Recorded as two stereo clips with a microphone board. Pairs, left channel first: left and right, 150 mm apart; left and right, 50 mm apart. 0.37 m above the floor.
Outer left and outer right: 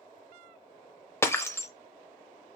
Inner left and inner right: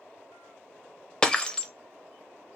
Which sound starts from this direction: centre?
Breaking glass, at 1.2 s.